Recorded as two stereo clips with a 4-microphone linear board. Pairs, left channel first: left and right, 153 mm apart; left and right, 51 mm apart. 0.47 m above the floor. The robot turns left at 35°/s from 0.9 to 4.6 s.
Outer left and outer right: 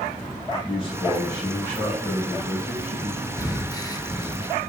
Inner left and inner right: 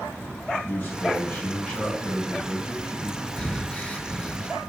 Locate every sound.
0.7 s a man speaking: 40° left, 3 m; by 3.3 s 40° right, 3 m
3.4 s breathing: 20° left (ahead or behind), 0.8 m; by 4.5 s 25° left (ahead or behind), 0.8 m